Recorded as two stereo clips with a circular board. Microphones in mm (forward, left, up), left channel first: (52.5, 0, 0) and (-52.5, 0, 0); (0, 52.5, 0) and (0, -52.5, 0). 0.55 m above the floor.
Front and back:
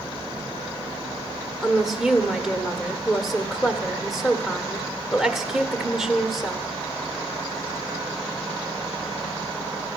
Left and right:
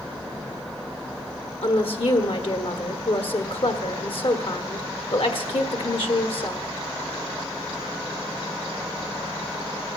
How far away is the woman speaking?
About 1.4 m.